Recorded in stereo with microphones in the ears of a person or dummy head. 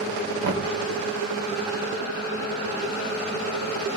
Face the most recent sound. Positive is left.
turn(degrees=-60)  # may be behind; listen again after turning